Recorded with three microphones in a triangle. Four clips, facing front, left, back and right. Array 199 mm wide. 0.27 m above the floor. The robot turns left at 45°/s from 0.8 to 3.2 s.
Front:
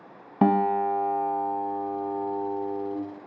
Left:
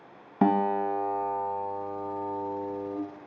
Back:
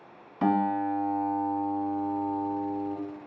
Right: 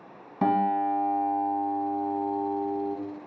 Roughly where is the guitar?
Ahead left.